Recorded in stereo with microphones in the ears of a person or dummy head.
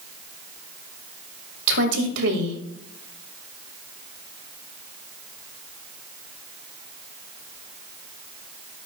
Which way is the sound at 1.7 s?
65° right (ahead or behind).